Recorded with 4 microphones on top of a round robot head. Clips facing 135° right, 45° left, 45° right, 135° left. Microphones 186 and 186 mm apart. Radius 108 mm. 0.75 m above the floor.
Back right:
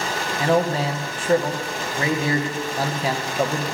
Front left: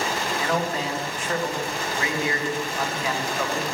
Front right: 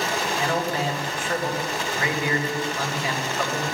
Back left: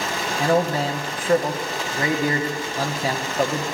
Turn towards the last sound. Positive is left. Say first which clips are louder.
# back right 8 dB, back left 8 dB
turn(degrees=175)